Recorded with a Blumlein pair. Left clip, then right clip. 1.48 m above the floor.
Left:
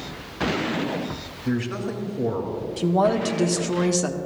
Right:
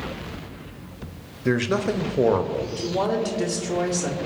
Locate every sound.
1.4 s a man speaking: 30° right, 0.7 m
2.8 s a woman speaking: 25° left, 1.1 m